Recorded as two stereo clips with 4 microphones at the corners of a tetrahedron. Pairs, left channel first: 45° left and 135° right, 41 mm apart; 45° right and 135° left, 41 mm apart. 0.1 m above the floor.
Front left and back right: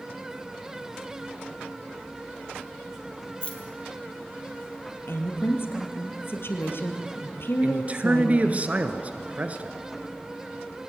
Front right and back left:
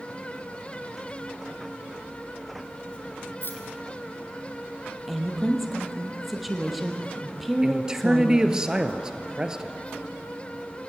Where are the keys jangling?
15° right, 2.5 m.